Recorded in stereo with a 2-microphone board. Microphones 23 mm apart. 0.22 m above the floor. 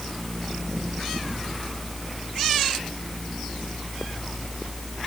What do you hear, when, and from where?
Only background noise.